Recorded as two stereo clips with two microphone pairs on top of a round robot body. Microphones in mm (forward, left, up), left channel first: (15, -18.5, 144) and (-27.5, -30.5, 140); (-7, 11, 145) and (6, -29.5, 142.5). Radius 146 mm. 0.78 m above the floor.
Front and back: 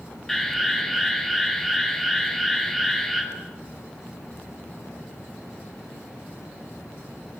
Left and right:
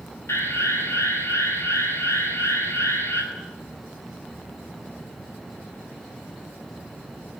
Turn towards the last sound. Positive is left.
turn(degrees=95)